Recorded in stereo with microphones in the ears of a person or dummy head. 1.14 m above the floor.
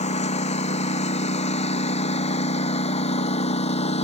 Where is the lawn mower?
40° left (ahead or behind).